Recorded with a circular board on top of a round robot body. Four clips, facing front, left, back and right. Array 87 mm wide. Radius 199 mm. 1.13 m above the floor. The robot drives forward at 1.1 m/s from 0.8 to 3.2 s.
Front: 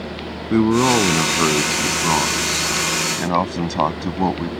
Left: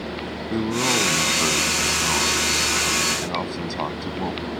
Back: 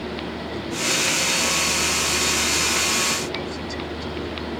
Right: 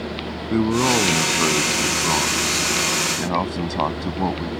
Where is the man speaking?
10° right; by 4.5 s 15° right.